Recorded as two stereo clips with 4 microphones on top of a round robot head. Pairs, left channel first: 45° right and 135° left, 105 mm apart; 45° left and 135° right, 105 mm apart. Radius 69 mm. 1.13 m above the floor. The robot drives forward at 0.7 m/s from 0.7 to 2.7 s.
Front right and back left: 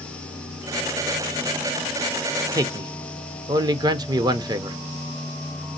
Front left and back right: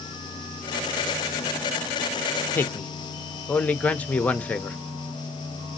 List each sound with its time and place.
2.5 s a man speaking: 95° left, 0.5 m; by 4.8 s 115° left, 0.5 m